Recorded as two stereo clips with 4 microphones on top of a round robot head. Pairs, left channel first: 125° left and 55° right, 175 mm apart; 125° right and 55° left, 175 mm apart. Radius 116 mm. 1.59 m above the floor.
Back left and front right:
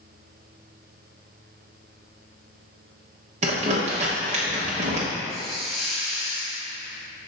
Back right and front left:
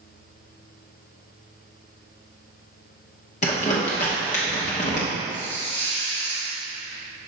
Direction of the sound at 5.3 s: 140° right.